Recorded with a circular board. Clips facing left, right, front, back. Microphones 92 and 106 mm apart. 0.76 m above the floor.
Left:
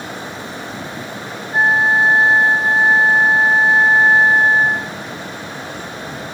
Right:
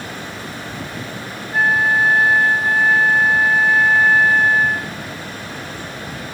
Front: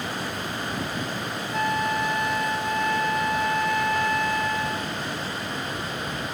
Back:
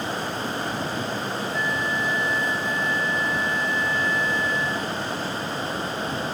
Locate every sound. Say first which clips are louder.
1.5 s a flute: left 2 dB, front 5 dB; 25° left